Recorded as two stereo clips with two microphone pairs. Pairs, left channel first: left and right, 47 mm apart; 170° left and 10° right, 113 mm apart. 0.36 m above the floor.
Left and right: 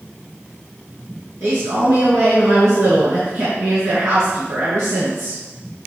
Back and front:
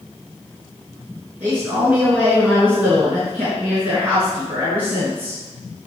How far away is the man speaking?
About 5 m.